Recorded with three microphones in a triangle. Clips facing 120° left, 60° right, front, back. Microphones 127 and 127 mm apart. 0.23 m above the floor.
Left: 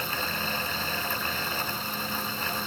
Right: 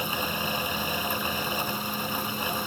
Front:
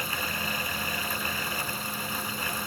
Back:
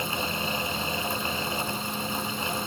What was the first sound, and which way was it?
Only background noise.